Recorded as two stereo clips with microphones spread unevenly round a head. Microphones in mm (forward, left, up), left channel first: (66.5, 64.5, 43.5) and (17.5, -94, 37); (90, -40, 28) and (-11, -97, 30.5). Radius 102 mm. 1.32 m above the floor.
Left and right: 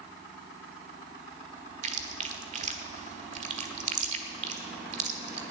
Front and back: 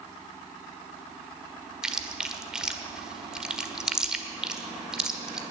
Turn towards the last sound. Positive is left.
turn(degrees=-70)